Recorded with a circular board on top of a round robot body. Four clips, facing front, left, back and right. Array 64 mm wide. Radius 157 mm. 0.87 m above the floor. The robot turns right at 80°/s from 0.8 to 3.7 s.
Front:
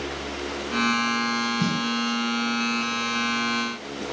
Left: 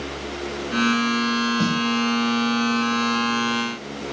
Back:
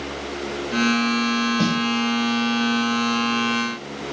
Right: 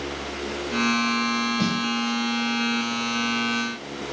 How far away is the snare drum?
About 1.6 m.